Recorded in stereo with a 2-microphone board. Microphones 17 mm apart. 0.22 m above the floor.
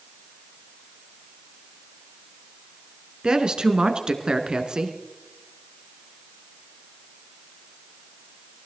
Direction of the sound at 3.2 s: 65° right (ahead or behind).